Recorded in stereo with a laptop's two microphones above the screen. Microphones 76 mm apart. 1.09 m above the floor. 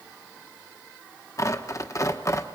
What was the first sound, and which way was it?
Tearing paper, 45° left (ahead or behind).